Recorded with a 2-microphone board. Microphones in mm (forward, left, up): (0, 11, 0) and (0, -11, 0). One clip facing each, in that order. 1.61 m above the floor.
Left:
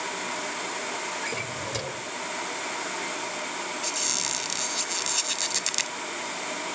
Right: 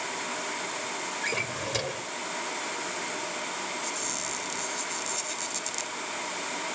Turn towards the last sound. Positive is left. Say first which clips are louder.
# left 4 dB
turn(degrees=50)  # may be behind; listen again after turning